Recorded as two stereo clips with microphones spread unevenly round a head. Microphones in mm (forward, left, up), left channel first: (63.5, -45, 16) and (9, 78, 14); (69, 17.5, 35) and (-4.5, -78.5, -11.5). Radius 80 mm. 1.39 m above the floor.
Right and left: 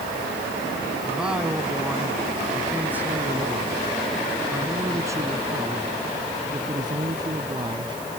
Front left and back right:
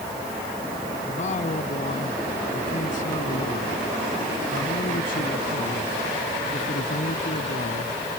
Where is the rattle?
I don't hear a rattle.